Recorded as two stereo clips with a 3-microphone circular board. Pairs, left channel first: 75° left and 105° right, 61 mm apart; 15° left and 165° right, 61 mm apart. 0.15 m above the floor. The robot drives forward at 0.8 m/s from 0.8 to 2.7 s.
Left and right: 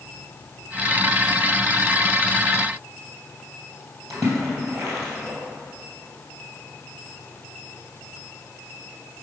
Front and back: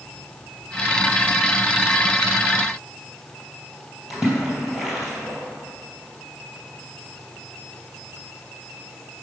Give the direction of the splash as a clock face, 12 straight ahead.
3 o'clock.